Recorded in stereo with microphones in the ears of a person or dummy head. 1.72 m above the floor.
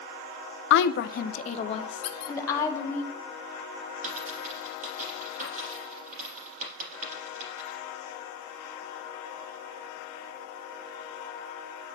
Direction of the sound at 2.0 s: 40° left (ahead or behind).